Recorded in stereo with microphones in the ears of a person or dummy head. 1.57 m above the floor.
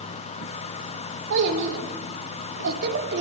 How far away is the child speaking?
About 3.5 m.